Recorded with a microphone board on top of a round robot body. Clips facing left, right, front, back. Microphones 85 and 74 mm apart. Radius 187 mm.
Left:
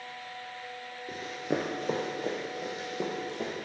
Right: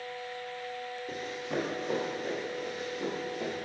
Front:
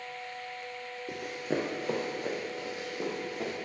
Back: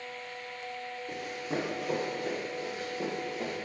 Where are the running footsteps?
5° left, 0.5 m; by 3.5 s 75° left, 3 m.